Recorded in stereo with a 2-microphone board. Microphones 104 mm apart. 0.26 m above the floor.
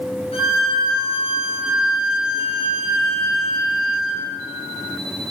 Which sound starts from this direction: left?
A violin, at 0.3 s.